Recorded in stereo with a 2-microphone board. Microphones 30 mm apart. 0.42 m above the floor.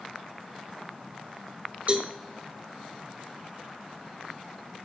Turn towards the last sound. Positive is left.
turn(degrees=-55)  # may be behind; listen again after turning